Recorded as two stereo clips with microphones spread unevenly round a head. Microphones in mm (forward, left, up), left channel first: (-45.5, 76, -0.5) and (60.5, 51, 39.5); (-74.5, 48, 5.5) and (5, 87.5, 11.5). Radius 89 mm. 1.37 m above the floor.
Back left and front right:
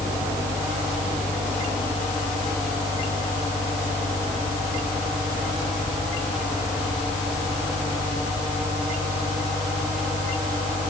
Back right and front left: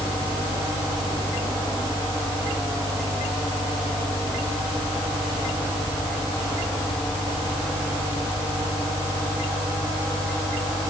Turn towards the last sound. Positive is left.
turn(degrees=-170)